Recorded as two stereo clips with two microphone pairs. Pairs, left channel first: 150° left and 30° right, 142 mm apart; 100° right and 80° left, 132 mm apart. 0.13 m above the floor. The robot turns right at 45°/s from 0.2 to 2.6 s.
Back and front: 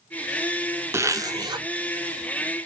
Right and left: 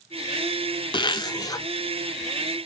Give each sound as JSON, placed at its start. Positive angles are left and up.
{"t": 0.9, "sound": "a zipper", "azimuth_deg": -90, "distance_m": 0.6}